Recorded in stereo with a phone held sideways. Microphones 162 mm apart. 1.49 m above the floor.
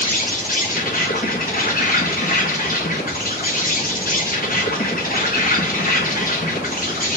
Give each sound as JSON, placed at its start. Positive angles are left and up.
{"t": 0.0, "sound": "an insect", "side_deg": 60, "distance_m": 1.2}